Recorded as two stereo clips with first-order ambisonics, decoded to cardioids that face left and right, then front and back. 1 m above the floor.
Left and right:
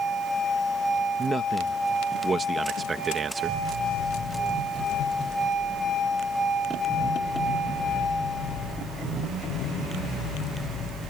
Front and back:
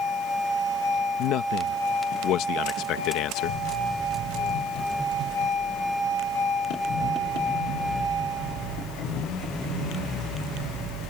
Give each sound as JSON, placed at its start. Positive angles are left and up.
{"t": 1.2, "sound": "a man speaking", "azimuth_deg": -20}